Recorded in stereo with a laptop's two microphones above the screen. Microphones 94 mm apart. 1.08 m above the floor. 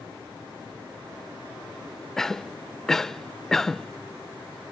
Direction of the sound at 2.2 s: 5° left (ahead or behind).